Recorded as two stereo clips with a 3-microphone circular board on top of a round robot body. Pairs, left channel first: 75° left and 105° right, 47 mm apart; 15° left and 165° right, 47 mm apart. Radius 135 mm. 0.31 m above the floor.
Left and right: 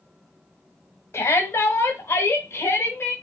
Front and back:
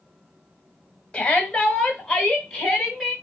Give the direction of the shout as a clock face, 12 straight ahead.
9 o'clock.